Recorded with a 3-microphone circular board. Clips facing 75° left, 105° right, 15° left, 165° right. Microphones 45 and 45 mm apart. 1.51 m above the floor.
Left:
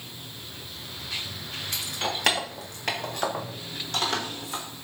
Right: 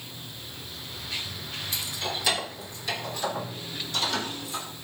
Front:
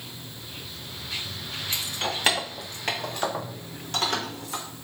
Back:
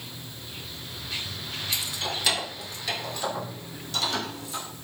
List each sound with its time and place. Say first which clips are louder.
1.7 s keys jangling: left 3 dB, front 2 dB; 60° left, 1.4 m; by 4.6 s 55° left, 3.5 m